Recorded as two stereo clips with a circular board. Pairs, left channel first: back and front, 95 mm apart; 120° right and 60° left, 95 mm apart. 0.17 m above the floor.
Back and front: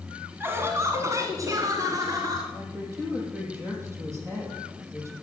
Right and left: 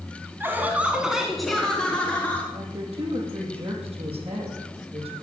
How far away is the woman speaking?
About 5.5 m.